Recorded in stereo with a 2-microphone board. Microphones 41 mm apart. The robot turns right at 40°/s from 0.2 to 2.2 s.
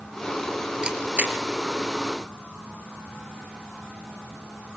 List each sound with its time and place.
0.8 s a camera shutter: 25° right (ahead or behind), 3.5 m; by 1.4 s 45° right (ahead or behind), 3.5 m